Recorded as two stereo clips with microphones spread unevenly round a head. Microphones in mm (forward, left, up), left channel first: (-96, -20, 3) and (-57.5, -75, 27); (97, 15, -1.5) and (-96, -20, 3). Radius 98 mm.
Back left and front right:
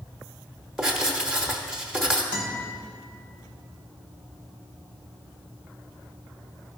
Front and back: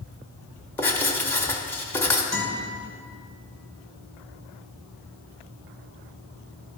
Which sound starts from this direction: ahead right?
Writing, at 0.8 s.